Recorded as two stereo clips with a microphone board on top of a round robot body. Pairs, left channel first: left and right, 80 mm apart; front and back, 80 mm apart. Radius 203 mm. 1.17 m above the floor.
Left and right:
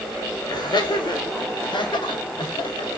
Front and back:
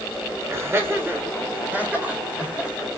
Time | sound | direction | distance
0.5 | laughter | 120° left | 6 m